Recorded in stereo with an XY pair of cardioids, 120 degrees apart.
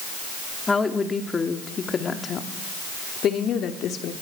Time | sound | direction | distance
0.7 | a woman speaking | 20° left | 2.5 m